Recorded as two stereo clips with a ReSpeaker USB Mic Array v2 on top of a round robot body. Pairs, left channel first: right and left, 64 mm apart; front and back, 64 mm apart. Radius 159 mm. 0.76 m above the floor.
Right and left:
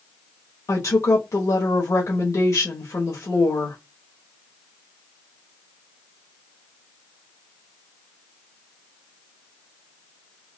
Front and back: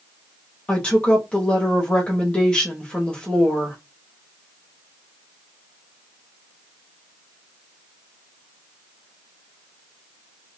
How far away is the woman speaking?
About 1.3 m.